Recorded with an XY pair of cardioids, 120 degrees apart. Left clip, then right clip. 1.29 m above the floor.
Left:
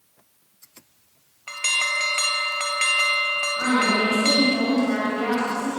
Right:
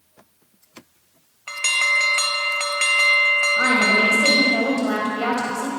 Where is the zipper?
I don't hear a zipper.